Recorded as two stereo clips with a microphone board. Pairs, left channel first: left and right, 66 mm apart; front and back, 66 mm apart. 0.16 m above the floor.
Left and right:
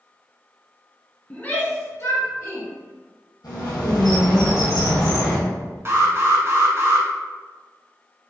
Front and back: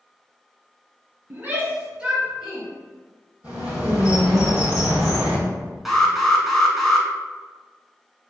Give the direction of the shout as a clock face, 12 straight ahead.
7 o'clock.